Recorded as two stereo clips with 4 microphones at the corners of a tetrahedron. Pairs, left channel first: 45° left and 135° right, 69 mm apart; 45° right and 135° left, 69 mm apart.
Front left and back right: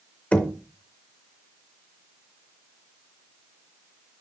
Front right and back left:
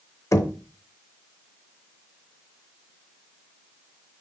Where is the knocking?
20° right, 0.7 m.